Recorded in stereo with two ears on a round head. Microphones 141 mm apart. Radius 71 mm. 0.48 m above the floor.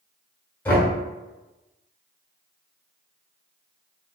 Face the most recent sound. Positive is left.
turn(degrees=10)  # may be behind; listen again after turning